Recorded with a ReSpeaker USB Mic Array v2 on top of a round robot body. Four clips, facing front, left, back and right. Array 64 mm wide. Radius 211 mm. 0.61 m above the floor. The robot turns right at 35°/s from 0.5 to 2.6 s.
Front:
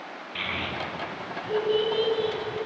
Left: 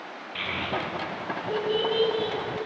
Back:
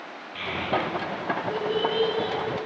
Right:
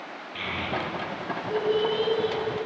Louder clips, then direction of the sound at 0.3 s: Even, back 5 dB; 30° left.